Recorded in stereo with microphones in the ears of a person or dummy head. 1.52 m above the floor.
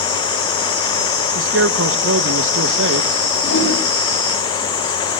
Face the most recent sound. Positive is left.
turn(degrees=85)